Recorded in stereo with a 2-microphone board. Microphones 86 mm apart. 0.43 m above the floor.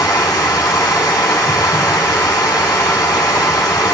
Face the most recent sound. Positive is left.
turn(degrees=50)  # may be behind; listen again after turning